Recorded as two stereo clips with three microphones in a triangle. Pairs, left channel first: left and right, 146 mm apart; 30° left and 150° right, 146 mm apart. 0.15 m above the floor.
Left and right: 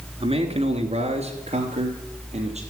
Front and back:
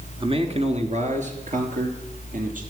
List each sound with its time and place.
0.2 s a man speaking: 115° right, 1.8 m; by 2.6 s 130° right, 4 m